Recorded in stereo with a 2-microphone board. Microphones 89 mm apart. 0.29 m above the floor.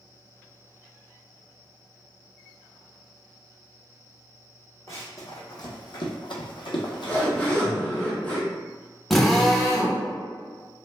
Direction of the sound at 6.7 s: 15° left (ahead or behind).